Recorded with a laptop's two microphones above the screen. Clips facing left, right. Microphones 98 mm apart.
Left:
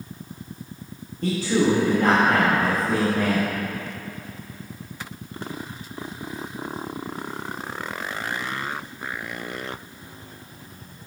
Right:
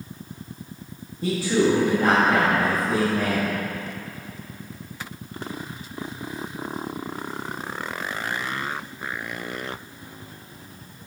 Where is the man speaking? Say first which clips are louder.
Even; 10° right (ahead or behind), 1.3 m.